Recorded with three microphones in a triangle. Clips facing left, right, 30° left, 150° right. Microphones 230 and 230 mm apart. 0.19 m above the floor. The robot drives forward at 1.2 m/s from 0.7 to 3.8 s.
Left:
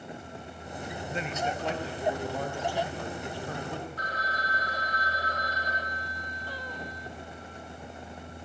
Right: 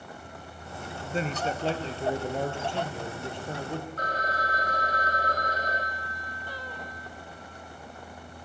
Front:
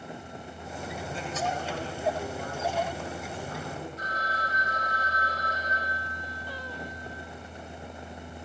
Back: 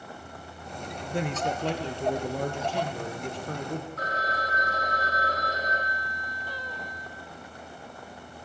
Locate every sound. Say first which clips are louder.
1.1 s a man speaking: right 4 dB, back 5 dB; 140° right, 3 m; by 3.9 s 160° right, 6 m
4.0 s a phone ringing: right 5 dB, back 4 dB; 130° right, 4.5 m